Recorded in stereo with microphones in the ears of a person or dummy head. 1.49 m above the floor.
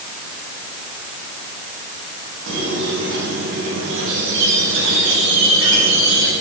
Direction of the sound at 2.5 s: 70° right (ahead or behind).